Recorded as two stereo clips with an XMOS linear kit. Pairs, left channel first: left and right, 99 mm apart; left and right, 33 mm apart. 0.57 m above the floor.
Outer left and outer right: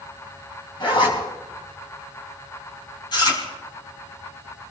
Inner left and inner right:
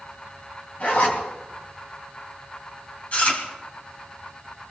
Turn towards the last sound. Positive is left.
turn(degrees=45)  # may be behind; listen again after turning